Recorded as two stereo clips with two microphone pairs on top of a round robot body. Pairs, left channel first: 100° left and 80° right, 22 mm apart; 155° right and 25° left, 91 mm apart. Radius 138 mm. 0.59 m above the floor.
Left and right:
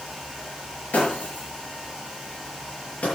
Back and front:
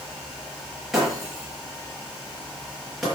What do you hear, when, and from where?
0.9 s breaking glass: 110° left, 7 m